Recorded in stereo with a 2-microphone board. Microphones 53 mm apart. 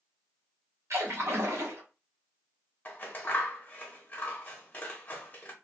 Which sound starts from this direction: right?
A splash, at 0.9 s.